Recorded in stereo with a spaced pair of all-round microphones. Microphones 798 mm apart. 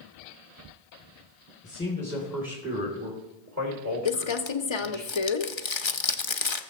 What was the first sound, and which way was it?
A man speaking, 10° left (ahead or behind).